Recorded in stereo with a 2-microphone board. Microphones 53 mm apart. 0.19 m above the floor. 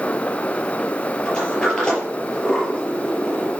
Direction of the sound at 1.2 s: 15° left (ahead or behind).